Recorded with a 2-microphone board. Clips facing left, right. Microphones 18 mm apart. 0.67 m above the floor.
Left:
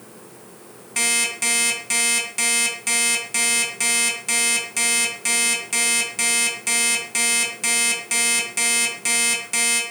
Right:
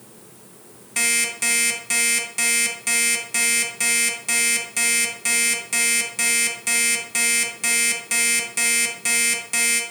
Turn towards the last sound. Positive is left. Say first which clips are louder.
# even
turn(degrees=5)  # may be behind; listen again after turning